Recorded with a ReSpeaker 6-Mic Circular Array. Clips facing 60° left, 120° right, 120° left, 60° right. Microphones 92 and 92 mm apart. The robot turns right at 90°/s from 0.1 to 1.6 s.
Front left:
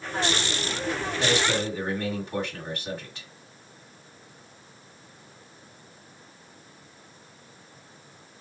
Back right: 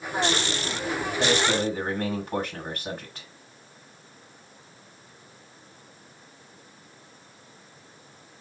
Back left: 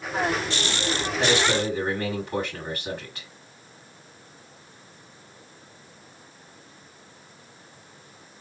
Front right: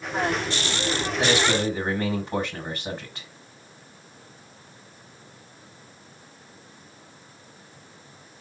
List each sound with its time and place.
1.2 s a man speaking: 140° right, 2.0 m; by 3.3 s 100° right, 2.0 m